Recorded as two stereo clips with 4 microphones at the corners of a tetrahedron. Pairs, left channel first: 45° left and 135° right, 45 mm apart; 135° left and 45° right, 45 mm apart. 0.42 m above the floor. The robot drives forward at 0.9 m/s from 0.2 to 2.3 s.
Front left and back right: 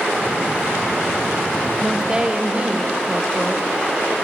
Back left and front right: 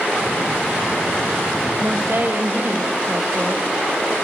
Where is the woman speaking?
55° right, 1.7 m; by 4.1 s 75° right, 1.5 m.